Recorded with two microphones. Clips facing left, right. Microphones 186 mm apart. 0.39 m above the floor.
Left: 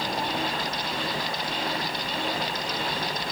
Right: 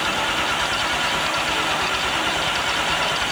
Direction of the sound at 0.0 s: 85° right.